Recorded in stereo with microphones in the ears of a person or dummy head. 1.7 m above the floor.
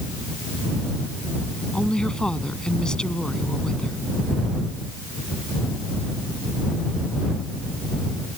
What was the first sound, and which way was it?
A woman speaking, centre (ahead or behind).